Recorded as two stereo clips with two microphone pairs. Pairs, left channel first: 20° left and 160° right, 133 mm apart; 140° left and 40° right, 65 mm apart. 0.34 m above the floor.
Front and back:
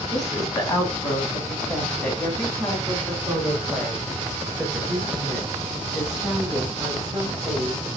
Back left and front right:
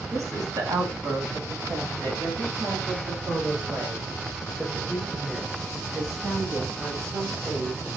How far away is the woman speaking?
About 2 m.